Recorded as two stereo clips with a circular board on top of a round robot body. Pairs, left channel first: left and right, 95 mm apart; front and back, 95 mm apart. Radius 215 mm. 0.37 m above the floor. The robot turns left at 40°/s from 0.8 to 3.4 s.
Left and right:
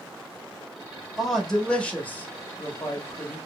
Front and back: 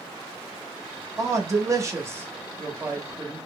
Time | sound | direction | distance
1.2 | a man speaking | 175° right | 1.4 m